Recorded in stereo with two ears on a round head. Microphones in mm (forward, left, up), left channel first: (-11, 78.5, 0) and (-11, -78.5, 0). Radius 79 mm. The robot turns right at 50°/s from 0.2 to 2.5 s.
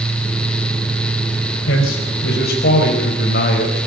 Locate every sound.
1.7 s a man speaking: 75° left, 4.5 m; by 3.9 s 120° left, 4.5 m